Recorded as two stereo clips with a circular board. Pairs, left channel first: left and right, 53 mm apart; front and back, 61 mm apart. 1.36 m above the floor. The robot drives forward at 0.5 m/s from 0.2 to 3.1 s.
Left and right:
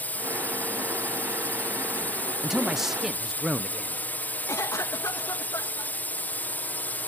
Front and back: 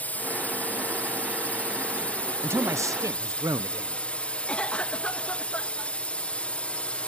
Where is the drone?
50° left; by 7.1 s 60° left.